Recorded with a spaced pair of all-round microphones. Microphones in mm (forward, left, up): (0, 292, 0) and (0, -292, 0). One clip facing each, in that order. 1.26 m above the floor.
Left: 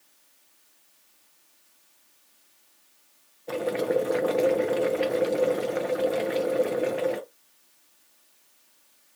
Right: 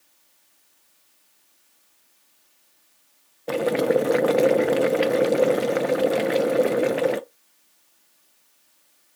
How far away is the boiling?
About 0.5 m.